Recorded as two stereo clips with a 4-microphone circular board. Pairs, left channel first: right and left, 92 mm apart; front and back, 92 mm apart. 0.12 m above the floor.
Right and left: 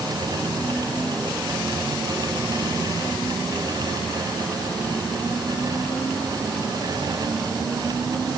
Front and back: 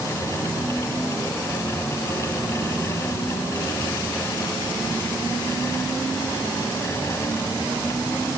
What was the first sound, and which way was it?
Only background noise.